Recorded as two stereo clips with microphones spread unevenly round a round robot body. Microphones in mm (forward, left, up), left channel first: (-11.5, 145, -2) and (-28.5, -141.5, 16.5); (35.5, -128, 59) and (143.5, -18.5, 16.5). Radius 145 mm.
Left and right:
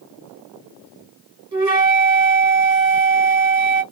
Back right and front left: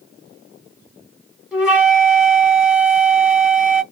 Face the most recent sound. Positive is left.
turn(degrees=-35)